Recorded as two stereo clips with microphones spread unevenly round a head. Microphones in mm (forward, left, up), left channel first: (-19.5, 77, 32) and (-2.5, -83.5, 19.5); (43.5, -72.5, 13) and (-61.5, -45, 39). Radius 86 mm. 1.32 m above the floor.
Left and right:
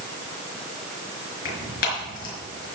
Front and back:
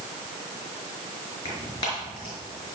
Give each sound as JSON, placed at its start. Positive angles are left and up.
{"t": 1.4, "sound": "tearing paper", "azimuth_deg": 55, "distance_m": 5.0}